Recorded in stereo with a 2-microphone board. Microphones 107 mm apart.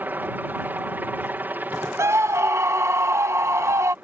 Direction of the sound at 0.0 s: 15° right (ahead or behind).